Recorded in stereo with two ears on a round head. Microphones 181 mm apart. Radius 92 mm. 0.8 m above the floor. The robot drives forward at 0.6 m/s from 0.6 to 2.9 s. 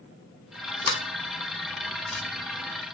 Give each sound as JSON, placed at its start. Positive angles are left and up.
{"t": 0.8, "sound": "a sliding door", "side_deg": 25, "distance_m": 0.7}